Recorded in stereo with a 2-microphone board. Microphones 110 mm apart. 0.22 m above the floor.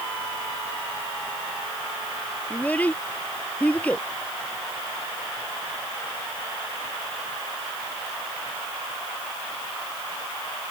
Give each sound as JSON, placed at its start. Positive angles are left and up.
{"t": 2.5, "sound": "a child speaking", "side_deg": 15}